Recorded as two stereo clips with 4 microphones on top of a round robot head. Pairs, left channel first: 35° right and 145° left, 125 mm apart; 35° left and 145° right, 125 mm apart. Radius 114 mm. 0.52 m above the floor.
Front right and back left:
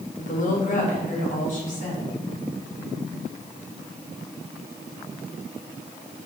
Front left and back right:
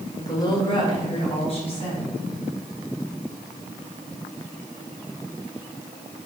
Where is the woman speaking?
30° right, 2 m; by 2.1 s 10° right, 5 m.